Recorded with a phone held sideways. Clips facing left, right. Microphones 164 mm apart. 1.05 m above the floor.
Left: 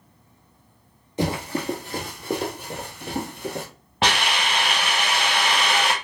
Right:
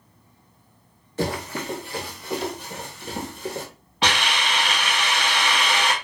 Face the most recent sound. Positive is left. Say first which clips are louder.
# left 1 dB
turn(degrees=50)  # may be behind; listen again after turning